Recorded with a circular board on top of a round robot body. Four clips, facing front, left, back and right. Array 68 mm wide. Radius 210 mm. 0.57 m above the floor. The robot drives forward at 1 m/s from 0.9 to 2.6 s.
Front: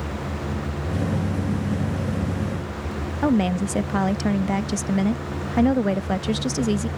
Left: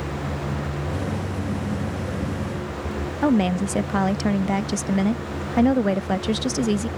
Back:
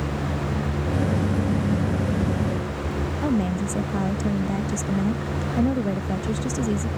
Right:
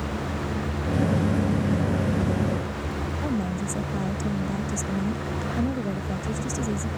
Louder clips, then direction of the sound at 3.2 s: Left 10 dB, front 4 dB; 55° left.